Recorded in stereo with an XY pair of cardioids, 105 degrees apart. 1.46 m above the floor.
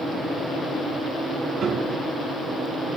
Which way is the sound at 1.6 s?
50° right.